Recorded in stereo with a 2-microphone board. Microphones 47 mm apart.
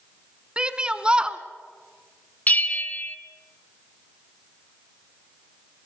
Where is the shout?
20° right (ahead or behind), 1.1 m.